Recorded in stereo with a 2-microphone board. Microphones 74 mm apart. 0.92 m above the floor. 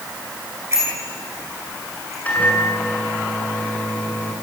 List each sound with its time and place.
0.7 s a bicycle bell: 35° right (ahead or behind), 9.5 m; by 2.1 s 40° right (ahead or behind), 8.5 m
2.2 s a microwave: 20° left (ahead or behind), 8 m